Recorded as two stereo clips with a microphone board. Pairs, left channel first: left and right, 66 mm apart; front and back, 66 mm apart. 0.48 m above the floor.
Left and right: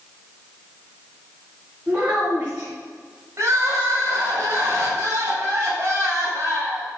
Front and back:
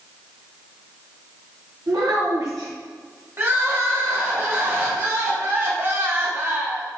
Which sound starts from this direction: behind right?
Crying, at 3.4 s.